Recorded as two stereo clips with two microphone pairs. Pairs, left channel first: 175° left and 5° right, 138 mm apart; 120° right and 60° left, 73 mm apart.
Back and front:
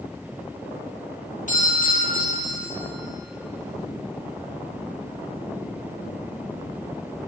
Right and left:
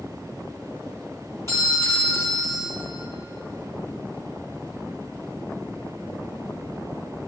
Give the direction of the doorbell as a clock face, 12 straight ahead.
6 o'clock.